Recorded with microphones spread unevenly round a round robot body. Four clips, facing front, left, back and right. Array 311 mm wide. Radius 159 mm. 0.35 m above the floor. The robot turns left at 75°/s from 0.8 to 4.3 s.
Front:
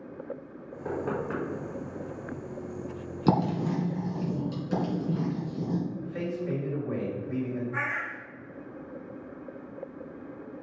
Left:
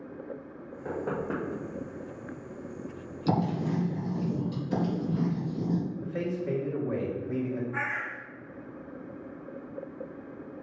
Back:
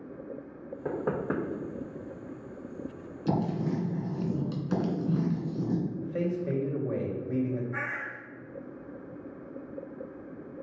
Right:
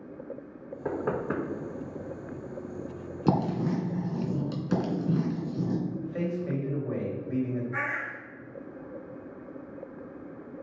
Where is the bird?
130° right, 3 m.